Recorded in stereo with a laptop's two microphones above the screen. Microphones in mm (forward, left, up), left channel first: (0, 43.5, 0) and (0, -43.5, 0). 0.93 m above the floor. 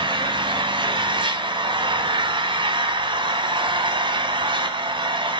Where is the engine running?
70° right (ahead or behind), 2 m.